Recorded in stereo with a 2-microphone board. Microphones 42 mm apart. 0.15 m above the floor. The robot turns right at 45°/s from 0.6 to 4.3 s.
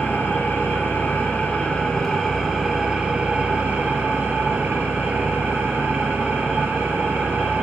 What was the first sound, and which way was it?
An engine running, 95° left.